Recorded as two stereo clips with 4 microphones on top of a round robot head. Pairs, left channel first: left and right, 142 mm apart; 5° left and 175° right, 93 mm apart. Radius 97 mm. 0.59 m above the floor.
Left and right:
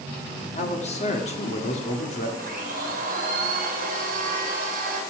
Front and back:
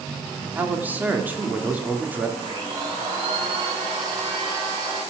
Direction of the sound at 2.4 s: 120° right.